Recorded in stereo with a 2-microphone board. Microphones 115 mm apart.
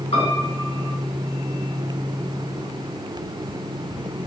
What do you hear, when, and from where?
0.1 s a piano: 65° left (ahead or behind), 4 m